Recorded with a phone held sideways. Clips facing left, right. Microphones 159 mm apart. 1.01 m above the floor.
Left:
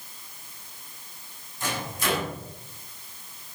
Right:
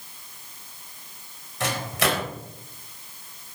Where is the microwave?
85° right, 3.5 m.